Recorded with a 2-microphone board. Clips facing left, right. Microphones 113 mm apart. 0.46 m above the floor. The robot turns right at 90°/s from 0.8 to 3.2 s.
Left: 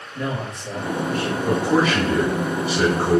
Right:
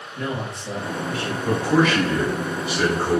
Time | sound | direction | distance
0.1 | a man speaking | 90° left | 1.9 m
1.4 | a man speaking | 10° left | 1.3 m